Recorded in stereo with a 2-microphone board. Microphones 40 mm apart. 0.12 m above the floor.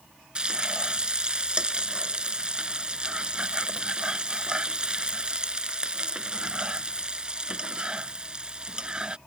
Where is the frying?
25° right (ahead or behind).